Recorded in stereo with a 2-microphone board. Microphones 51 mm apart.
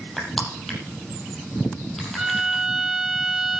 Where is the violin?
10° right (ahead or behind), 1.4 m.